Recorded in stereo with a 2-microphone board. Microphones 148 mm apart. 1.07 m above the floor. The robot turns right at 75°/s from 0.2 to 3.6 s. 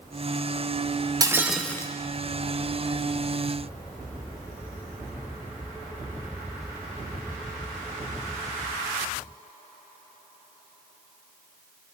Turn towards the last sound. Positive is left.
turn(degrees=155)